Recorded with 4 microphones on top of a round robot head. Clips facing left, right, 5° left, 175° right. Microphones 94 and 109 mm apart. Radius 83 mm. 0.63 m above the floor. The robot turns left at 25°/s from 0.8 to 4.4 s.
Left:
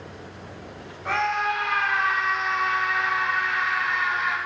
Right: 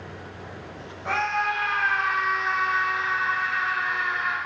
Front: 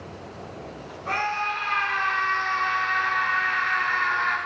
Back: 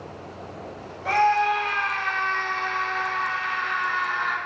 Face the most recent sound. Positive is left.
turn(degrees=100)